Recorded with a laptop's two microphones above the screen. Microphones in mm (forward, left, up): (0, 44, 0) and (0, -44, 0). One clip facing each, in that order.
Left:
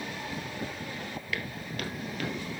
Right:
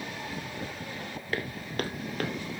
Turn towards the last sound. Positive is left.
turn(degrees=-50)  # may be behind; listen again after turning